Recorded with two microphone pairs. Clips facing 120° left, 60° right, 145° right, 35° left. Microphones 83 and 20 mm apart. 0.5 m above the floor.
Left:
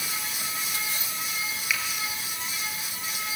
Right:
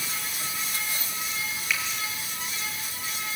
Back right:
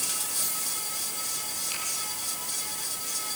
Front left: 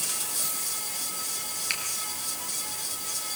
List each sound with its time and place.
1.7 s a finger snap: 30° left, 6.5 m